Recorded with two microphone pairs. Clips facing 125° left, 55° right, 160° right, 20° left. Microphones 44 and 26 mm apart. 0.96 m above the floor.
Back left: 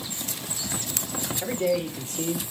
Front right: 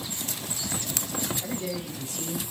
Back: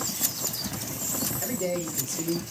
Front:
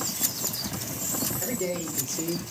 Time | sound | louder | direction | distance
1.4 | a man speaking | back left 7 dB, back 3 dB | 90° left | 3 m